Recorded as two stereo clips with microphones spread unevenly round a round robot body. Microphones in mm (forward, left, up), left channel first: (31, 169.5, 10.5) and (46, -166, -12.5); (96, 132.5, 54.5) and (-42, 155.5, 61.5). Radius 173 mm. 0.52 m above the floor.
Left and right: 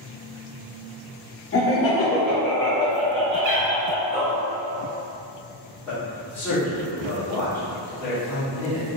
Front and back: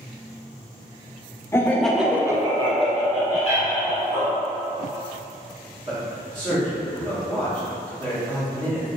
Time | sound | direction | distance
1.5 | laughter | 50° left | 0.8 m
3.4 | a cat meowing | 95° right | 0.9 m
5.9 | a man speaking | straight behind | 1.2 m